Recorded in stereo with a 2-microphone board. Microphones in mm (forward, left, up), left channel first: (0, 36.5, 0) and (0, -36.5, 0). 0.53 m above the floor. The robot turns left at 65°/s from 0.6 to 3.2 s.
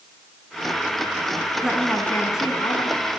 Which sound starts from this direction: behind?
A woman speaking, at 1.6 s.